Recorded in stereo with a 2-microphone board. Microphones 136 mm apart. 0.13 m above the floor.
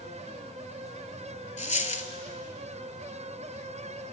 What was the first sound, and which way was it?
A dropped coin, 60° left (ahead or behind).